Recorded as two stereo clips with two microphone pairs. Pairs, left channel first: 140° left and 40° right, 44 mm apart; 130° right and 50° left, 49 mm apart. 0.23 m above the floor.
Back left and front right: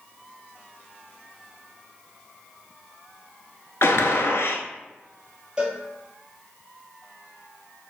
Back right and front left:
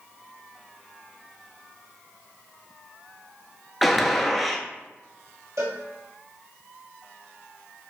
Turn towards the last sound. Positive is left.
turn(degrees=30)